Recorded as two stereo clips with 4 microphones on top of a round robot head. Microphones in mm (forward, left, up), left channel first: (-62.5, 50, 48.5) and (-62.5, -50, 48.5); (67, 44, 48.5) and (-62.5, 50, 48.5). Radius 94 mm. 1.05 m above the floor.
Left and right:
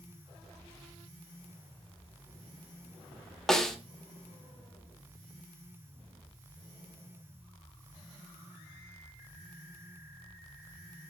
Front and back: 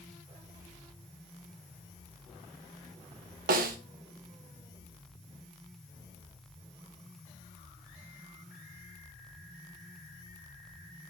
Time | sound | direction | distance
3.5 | a snare drum | 175° left | 0.8 m